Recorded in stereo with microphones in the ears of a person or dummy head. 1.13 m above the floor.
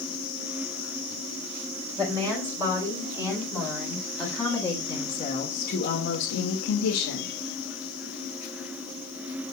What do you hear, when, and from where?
2.0 s a woman speaking: 25° right (ahead or behind), 4.5 m; by 7.3 s 85° left, 2.5 m